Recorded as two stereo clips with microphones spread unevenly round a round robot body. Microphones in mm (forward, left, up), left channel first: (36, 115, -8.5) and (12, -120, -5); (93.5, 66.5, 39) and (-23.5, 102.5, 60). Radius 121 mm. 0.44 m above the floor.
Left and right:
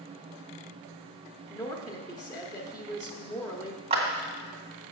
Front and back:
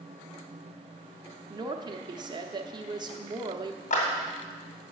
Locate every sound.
1.5 s a woman speaking: 140° left, 0.8 m
3.9 s a clap: 30° right, 2.5 m